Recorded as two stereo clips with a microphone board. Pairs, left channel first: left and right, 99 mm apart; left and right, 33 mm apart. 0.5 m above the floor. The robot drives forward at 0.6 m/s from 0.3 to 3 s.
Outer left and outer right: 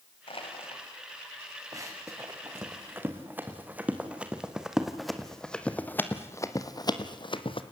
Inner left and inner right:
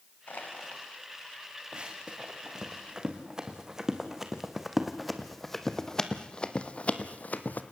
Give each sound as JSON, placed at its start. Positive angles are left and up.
{"t": 0.3, "sound": "crushing", "side_deg": 65, "distance_m": 2.5}
{"t": 1.7, "sound": "running footsteps", "side_deg": -35, "distance_m": 3.0}